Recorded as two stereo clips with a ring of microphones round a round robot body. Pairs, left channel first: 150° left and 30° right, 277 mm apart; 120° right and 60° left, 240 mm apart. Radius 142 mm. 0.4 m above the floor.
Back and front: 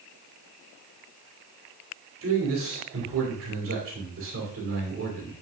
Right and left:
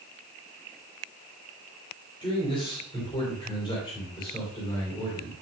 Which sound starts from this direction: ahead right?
A man speaking, at 2.2 s.